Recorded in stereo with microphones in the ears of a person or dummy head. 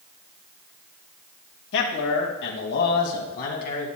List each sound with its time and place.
1.7 s a man speaking: 75° left (ahead or behind), 2.0 m; by 3.9 s 50° left (ahead or behind), 2.5 m